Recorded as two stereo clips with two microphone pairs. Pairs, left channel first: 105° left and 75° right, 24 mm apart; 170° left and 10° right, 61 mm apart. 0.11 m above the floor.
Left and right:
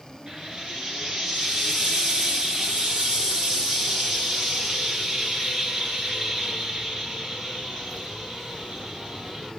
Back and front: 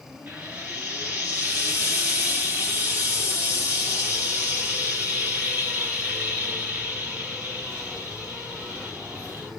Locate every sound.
0.3 s frying: 30° right, 1.7 m